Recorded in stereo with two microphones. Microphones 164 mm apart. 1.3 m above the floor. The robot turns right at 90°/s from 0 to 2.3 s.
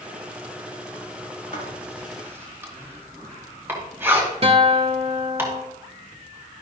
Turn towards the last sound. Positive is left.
turn(degrees=-40)  # may be behind; listen again after turning